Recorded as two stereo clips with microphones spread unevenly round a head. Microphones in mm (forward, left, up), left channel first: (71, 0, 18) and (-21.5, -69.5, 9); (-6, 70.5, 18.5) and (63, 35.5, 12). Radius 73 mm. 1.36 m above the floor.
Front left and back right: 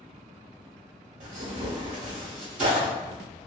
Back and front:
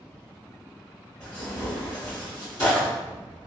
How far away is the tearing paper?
About 1.3 m.